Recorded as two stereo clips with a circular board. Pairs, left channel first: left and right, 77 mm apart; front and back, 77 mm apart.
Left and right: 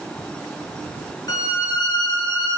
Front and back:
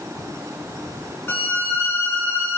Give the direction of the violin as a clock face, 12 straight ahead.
10 o'clock.